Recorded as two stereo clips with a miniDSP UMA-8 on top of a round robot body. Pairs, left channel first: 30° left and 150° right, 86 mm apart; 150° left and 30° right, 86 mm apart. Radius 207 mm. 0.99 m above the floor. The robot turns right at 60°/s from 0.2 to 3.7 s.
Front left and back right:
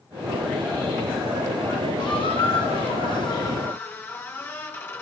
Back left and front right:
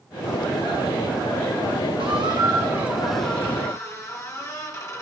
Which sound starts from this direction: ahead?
A squeak, at 2.0 s.